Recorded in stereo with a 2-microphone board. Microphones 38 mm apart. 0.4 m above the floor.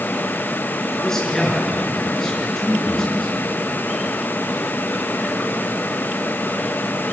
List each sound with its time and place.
1.0 s a man speaking: 15° left (ahead or behind), 6 m